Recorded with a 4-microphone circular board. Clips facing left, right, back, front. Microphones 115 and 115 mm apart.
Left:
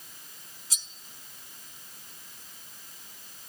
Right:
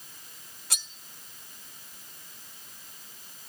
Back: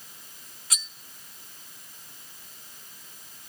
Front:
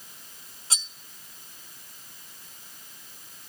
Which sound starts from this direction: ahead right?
Cutlery clinking, at 0.7 s.